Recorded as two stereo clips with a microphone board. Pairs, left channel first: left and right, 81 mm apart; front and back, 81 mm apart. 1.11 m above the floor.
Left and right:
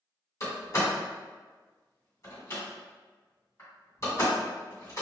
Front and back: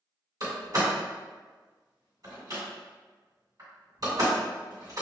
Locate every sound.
0.4 s a door slam: 140° left, 1.9 m